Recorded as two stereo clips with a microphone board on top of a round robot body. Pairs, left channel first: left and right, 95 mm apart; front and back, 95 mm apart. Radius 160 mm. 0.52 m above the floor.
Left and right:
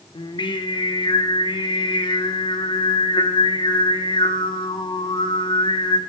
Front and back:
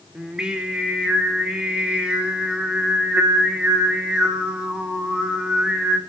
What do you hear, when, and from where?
0.1 s singing: 100° left, 2.5 m